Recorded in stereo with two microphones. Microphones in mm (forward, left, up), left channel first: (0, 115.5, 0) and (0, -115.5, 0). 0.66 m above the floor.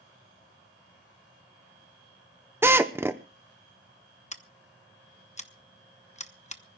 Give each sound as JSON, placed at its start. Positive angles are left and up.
{"t": 2.6, "sound": "a drill", "side_deg": -10, "distance_m": 0.9}
{"t": 4.3, "sound": "scissors", "side_deg": 30, "distance_m": 0.9}